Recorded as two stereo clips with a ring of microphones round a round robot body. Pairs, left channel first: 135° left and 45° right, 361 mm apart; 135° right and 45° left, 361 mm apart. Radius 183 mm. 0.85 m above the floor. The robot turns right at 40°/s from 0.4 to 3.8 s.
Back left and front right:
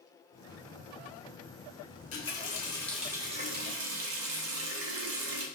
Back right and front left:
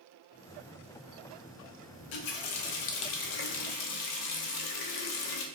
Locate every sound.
1.9 s a running tap: 175° right, 0.6 m; by 5.5 s 100° right, 0.6 m